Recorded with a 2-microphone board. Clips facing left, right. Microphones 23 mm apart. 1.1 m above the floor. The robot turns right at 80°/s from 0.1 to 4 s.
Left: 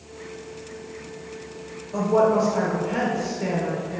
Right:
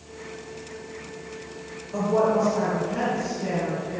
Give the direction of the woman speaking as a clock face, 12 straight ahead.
12 o'clock.